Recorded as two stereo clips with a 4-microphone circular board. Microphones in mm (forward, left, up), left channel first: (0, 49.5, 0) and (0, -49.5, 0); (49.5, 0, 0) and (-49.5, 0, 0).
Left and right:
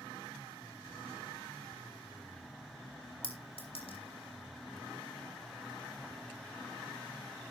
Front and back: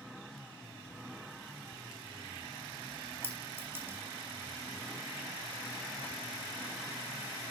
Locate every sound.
3.2 s a clink: 110° left, 3 m